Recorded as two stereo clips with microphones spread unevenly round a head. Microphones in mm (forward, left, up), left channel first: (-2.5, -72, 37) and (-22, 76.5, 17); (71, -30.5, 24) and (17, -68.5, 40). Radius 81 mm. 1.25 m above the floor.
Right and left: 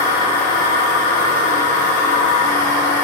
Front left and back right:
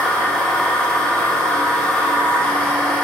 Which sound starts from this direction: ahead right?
A machine running, at 0.0 s.